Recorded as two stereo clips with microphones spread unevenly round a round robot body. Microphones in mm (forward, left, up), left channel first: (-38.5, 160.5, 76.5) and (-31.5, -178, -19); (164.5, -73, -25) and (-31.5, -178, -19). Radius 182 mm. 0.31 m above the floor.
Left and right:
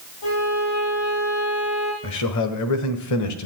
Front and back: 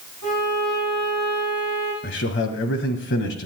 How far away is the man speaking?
About 1.5 m.